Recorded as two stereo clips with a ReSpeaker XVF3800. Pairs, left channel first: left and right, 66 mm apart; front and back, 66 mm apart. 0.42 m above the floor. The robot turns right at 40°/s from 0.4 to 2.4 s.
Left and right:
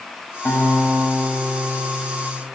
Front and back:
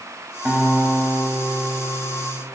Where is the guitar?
105° left, 3 m; by 2.4 s 175° right, 3 m.